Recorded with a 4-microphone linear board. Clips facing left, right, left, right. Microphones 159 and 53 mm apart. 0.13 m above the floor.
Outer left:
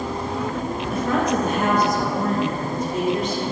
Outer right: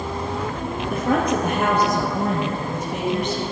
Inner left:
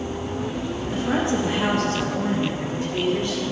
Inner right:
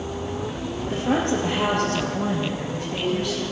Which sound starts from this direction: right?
A woman speaking, at 0.9 s.